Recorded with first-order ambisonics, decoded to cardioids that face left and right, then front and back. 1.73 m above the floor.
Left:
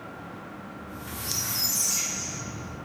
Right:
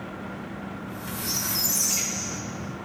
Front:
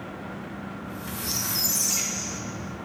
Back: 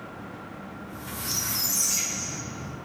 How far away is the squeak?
About 1.3 m.